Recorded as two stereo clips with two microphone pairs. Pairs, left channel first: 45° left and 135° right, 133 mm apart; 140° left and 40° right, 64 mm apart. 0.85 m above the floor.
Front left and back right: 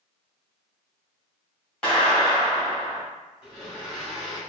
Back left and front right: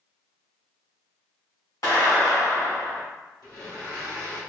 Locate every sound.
1.8 s a clap: 125° left, 2.0 m
3.4 s a blender: 140° left, 1.9 m